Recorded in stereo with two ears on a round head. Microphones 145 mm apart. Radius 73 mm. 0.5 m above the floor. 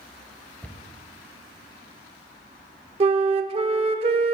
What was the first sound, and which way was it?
A cupboard door, 10° left (ahead or behind).